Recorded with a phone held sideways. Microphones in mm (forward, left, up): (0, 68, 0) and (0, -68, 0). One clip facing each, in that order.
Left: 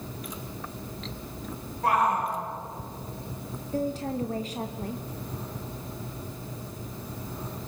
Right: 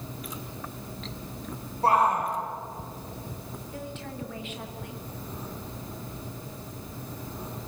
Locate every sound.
1.8 s a shout: 35° right (ahead or behind), 5 m
3.7 s a woman speaking: 40° left (ahead or behind), 1.1 m